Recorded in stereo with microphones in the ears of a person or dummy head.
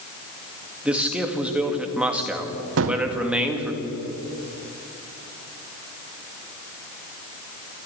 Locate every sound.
0.8 s a man speaking: 5° right (ahead or behind), 2.5 m
2.8 s a gunshot: 70° right (ahead or behind), 1.4 m